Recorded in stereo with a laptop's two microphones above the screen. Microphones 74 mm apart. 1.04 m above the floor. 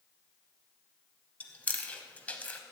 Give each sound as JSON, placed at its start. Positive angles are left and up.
{"t": 1.4, "sound": "chewing", "side_deg": 20, "distance_m": 0.9}